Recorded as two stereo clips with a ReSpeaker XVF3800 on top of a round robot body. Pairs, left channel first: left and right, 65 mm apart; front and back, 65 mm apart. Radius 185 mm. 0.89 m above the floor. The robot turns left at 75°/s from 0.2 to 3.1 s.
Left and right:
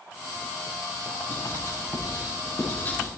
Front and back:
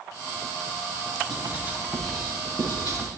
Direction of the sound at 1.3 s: 150° left.